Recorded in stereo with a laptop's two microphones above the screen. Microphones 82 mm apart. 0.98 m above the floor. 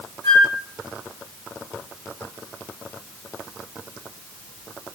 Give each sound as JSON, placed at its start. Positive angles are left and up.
{"t": 0.2, "sound": "a flute", "side_deg": 45, "distance_m": 0.7}